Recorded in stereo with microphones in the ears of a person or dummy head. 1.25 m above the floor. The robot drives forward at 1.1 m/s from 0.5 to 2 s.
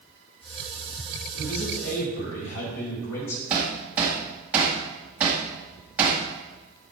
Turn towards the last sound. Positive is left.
turn(degrees=-10)  # may be behind; listen again after turning